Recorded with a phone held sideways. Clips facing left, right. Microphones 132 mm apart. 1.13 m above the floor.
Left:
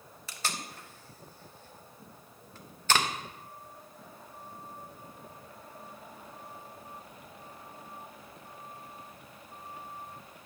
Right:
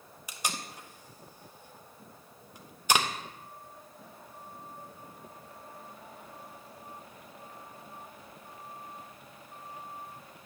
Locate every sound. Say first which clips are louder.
0.3 s tape being pulled: right 1 dB; 15° right (ahead or behind), 0.7 m